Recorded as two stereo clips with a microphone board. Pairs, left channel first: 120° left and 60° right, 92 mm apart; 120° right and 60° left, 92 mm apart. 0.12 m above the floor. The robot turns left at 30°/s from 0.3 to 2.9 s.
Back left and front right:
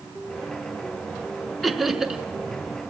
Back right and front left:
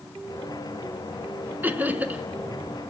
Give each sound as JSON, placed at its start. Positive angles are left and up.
{"t": 1.6, "sound": "laughter", "azimuth_deg": 30, "distance_m": 1.3}